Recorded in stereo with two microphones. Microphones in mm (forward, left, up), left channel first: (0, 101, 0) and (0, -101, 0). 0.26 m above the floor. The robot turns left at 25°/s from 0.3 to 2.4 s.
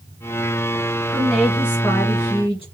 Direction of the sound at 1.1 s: Straight behind.